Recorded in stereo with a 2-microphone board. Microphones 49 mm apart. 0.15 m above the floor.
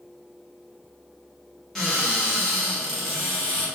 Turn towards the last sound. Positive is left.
turn(degrees=5)  # may be behind; listen again after turning